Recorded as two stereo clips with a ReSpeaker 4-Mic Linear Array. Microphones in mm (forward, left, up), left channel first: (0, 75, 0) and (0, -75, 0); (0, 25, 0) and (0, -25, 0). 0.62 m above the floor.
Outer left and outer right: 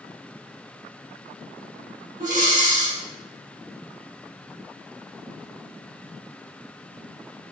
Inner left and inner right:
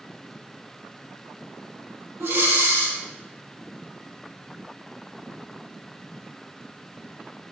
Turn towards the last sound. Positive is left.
turn(degrees=-75)  # may be behind; listen again after turning